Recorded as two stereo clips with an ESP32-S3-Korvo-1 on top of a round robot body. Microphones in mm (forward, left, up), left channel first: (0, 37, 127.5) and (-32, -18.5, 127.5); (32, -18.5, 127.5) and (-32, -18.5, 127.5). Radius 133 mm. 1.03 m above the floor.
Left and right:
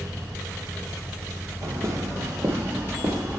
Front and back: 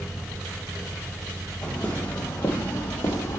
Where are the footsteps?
70° right, 1.8 m; by 3.4 s 50° right, 2.5 m.